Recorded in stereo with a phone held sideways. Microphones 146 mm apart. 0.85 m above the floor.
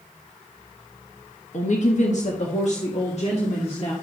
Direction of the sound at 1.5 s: 55° left (ahead or behind).